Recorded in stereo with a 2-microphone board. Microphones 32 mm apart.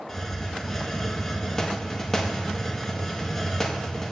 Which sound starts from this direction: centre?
A hiss, at 0.1 s.